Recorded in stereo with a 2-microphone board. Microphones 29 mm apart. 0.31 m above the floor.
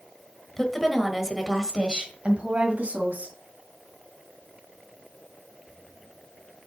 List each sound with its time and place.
0.6 s a woman speaking: 15° left (ahead or behind), 1.5 m; by 3.4 s 55° right (ahead or behind), 2.5 m